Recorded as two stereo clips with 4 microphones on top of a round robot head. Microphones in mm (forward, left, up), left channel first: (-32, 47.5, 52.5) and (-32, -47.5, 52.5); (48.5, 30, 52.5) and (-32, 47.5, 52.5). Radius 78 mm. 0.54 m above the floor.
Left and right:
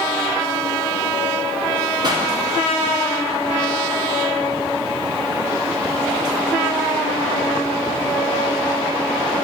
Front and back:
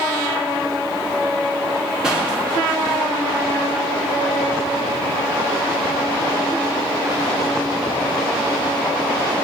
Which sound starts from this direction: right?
A pop, at 2.0 s.